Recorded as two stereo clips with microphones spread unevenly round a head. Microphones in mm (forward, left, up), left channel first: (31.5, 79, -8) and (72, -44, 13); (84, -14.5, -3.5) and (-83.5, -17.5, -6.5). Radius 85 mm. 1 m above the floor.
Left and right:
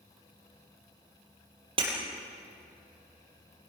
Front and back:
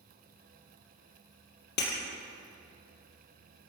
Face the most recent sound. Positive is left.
turn(degrees=-25)